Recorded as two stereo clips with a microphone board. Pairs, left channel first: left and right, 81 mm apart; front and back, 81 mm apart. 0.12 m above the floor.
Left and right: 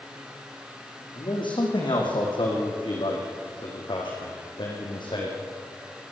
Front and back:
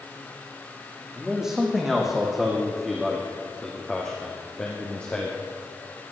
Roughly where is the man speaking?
Left.